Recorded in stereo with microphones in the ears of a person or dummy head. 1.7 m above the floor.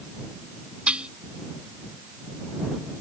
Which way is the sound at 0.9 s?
5° right (ahead or behind).